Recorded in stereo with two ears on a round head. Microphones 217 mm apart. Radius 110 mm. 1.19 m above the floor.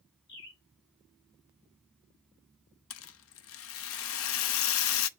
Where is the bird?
45° left (ahead or behind), 2.5 m.